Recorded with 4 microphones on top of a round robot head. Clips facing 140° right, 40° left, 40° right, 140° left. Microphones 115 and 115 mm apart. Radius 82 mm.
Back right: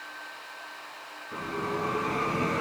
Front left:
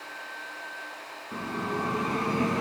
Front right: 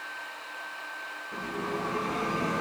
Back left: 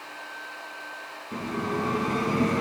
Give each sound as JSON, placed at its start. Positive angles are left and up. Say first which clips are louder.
{"t": 1.3, "sound": "a bell", "louder": "even, back left 4 dB", "azimuth_deg": 105, "distance_m": 1.0}